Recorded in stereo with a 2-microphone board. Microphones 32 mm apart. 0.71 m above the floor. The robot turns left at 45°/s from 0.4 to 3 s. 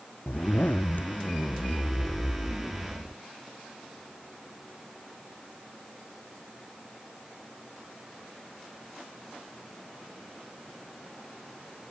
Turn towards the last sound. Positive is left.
turn(degrees=-15)